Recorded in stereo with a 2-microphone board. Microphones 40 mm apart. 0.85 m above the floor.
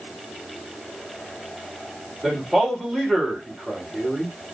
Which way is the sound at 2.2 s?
10° right (ahead or behind).